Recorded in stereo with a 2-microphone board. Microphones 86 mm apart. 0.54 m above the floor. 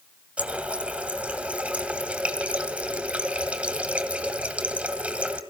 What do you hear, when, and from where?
0.4 s a running tap: 15° right (ahead or behind), 2.0 m